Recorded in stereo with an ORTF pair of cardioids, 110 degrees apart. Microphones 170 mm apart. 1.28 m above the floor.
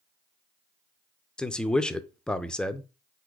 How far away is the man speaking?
About 0.5 m.